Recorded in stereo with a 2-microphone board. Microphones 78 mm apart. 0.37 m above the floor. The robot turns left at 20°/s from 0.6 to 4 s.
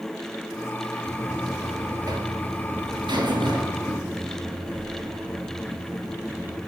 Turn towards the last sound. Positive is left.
turn(degrees=-95)